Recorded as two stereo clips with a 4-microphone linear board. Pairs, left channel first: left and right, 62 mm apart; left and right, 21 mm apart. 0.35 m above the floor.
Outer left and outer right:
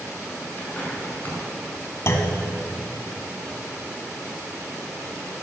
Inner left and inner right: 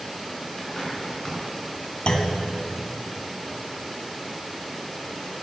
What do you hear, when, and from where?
0.6 s a bird: 30° left (ahead or behind), 4.5 m
2.1 s a clunk: 50° left (ahead or behind), 1.4 m